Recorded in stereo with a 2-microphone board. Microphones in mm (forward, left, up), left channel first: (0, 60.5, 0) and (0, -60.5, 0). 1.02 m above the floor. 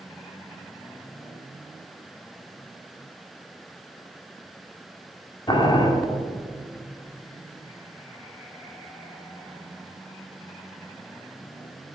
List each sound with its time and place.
5.5 s boiling: 40° left (ahead or behind), 1.4 m